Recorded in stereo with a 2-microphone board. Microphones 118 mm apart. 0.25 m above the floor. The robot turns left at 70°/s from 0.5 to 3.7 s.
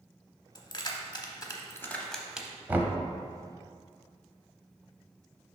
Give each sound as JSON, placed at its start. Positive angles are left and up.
{"t": 0.6, "sound": "keys jangling", "side_deg": 35, "distance_m": 0.8}
{"t": 2.7, "sound": "knocking", "side_deg": -15, "distance_m": 0.7}